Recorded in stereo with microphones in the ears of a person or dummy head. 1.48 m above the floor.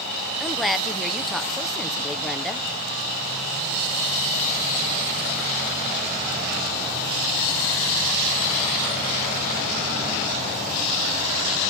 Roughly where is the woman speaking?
Centre.